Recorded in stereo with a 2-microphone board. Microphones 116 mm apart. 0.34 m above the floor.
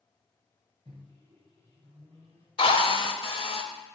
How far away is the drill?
About 0.6 m.